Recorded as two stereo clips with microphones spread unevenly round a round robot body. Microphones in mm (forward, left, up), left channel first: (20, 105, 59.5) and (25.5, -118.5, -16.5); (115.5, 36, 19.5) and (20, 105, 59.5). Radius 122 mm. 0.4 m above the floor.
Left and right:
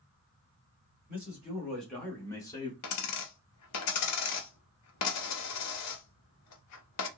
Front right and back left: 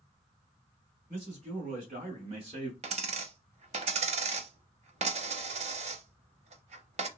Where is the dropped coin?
115° left, 0.6 m.